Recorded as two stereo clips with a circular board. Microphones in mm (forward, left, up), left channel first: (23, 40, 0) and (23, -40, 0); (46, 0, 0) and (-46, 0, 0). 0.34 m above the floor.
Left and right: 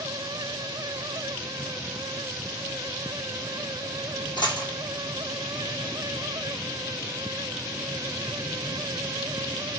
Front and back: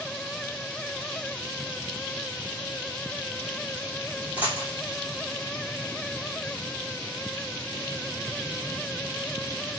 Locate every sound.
4.4 s a dropped coin: 105° left, 2.5 m